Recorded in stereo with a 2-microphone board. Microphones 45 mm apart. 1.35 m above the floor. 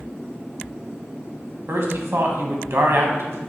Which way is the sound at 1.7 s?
65° right (ahead or behind).